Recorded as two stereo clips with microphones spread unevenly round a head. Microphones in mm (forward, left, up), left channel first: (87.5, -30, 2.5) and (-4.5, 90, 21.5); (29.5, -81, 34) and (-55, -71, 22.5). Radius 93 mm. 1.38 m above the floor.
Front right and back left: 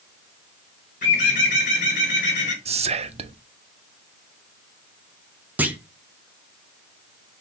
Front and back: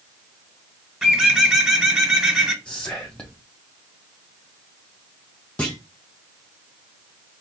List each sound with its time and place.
1.0 s a bird: 100° right, 1.4 m
2.6 s whispering: 75° left, 0.6 m
5.6 s a clunk: 60° left, 0.6 m